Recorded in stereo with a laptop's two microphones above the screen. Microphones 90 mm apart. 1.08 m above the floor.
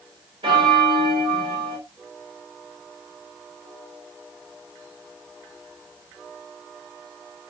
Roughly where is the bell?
Right.